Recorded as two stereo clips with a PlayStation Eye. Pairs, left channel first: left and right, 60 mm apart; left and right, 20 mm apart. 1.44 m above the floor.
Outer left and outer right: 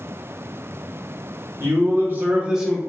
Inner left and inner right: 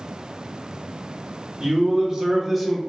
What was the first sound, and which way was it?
A man speaking, 50° right (ahead or behind).